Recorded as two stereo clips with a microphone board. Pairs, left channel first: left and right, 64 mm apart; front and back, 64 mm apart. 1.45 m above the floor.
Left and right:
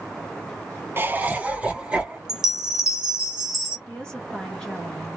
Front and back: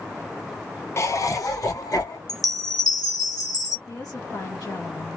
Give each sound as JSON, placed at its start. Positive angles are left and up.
{"t": 1.0, "sound": "laughter", "azimuth_deg": -40, "distance_m": 0.7}
{"t": 2.3, "sound": "a chime", "azimuth_deg": -10, "distance_m": 1.2}
{"t": 3.9, "sound": "a woman speaking", "azimuth_deg": 15, "distance_m": 1.2}